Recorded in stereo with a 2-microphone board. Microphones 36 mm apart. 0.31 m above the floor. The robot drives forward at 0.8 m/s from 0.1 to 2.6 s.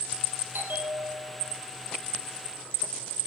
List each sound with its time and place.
0.5 s a bell: 75° right (ahead or behind), 5 m; by 1.6 s 65° right (ahead or behind), 5.5 m